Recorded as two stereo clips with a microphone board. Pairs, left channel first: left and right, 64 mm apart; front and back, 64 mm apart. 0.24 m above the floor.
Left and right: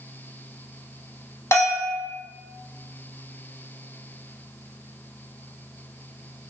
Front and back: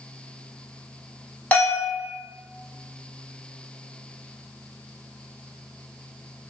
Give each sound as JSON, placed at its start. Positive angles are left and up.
{"t": 1.5, "sound": "a bell", "azimuth_deg": 60, "distance_m": 1.0}